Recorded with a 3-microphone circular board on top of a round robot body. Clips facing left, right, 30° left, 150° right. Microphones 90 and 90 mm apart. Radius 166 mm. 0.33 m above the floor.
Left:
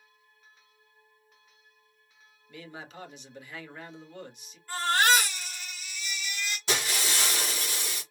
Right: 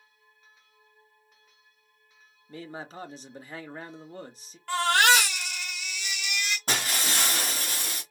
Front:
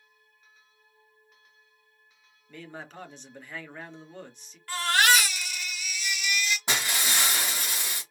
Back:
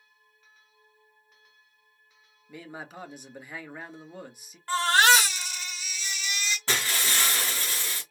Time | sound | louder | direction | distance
2.5 | a man speaking | right 4 dB, back 1 dB | 75° right | 1.3 m
4.7 | a baby crying | right 2 dB, back 3 dB | 90° right | 1.4 m
6.7 | breaking glass | left 1 dB, even | 45° right | 2 m